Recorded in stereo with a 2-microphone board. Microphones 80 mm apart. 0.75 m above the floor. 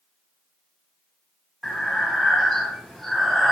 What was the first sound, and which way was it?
Breathing, 5° left (ahead or behind).